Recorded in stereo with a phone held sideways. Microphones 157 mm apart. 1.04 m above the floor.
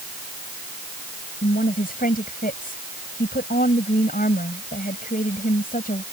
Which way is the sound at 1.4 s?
65° left (ahead or behind).